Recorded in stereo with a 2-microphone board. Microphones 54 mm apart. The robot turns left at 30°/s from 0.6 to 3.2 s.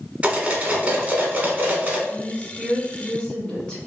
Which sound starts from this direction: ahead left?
A woman speaking, at 2.1 s.